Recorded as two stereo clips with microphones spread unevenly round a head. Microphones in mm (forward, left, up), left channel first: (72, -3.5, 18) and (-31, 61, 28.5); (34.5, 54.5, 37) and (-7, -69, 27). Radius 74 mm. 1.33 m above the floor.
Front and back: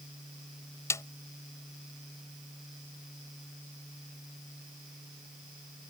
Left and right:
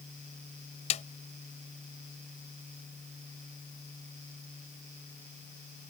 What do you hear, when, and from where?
0.9 s a snare drum: 35° left